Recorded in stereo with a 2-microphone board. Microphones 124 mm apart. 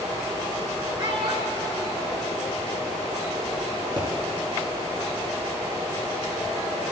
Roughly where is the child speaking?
Right.